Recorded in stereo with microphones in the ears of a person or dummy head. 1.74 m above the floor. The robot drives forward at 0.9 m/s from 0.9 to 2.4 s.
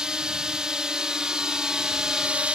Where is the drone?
5° right (ahead or behind).